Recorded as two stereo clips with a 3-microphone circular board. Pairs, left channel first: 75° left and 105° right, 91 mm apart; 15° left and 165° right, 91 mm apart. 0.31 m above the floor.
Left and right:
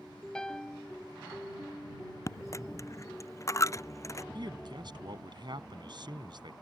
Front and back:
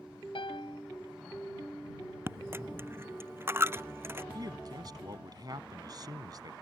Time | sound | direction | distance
0.3 | a piano | 10° right | ?
2.3 | a dropped coin | 130° left | ?
4.3 | a man speaking | 130° right | ?